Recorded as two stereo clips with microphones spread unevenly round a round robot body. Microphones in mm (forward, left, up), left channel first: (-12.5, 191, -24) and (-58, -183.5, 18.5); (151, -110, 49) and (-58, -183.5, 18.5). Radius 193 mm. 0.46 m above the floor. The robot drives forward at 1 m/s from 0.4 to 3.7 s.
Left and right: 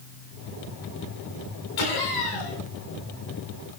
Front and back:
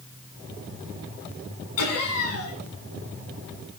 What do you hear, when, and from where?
1.8 s laughter: 50° left, 6.5 m; by 2.6 s 55° left, 6 m